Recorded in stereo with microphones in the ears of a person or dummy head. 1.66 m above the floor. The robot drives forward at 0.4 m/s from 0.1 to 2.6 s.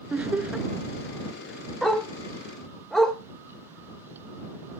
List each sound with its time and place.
0.1 s laughter: 5° right (ahead or behind), 0.7 m
1.8 s a dog barking: 5° left (ahead or behind), 2.5 m